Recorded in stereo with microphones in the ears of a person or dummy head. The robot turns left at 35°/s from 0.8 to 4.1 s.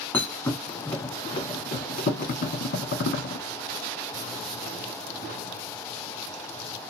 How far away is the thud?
About 1.6 m.